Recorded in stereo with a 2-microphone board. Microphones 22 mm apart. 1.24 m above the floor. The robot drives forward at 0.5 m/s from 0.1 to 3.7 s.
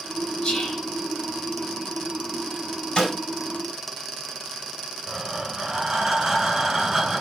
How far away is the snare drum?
About 4 m.